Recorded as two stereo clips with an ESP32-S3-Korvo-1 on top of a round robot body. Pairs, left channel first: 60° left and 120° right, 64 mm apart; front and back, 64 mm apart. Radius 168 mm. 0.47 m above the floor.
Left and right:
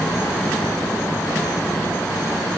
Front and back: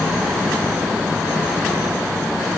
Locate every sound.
Only background noise.